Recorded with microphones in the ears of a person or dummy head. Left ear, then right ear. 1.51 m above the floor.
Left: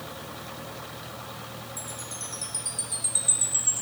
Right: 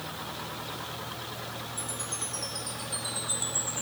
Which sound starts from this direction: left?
A chime, at 1.8 s.